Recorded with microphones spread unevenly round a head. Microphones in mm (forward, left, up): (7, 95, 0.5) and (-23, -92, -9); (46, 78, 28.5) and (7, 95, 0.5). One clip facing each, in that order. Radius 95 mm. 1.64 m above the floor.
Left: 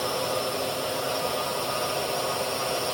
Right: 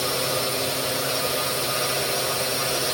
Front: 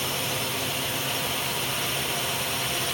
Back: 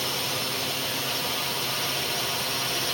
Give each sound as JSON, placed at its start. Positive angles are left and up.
{"t": 0.0, "sound": "a drone", "azimuth_deg": -130}